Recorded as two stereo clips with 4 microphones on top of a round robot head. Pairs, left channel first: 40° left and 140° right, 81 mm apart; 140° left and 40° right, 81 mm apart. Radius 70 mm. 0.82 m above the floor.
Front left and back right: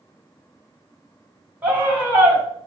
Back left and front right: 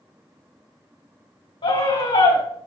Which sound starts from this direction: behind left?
A scream, at 1.6 s.